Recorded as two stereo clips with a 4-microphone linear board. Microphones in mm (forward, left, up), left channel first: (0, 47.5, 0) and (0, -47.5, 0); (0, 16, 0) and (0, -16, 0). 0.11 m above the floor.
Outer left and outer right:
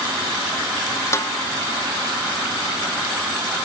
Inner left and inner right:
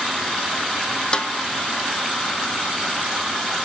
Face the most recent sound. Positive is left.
turn(degrees=30)  # may be behind; listen again after turning